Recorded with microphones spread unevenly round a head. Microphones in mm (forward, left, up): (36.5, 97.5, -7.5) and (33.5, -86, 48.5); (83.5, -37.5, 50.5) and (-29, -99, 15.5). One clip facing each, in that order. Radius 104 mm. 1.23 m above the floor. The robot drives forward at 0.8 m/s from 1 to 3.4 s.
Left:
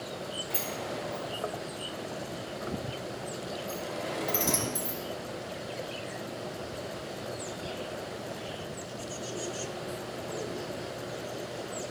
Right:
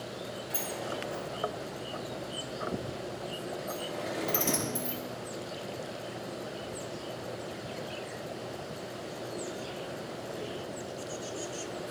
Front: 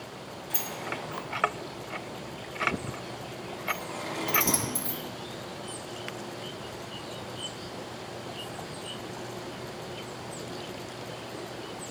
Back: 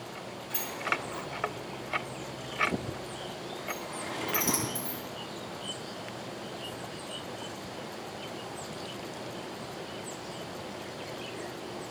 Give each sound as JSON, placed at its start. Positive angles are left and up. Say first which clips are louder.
{"t": 0.5, "sound": "a sliding door", "louder": "even, back 1 dB", "azimuth_deg": -5, "distance_m": 4.5}